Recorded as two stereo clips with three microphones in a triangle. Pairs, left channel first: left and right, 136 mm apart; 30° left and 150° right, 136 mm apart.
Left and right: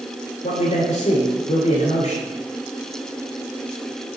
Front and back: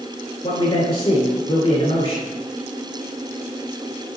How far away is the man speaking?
About 2 m.